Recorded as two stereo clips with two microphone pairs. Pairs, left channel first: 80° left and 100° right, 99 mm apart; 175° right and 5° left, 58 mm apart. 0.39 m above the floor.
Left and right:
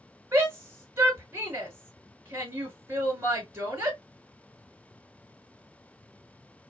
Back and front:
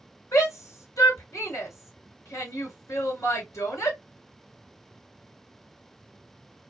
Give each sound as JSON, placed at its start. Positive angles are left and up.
{"t": 0.3, "sound": "a shout", "azimuth_deg": -165, "distance_m": 2.0}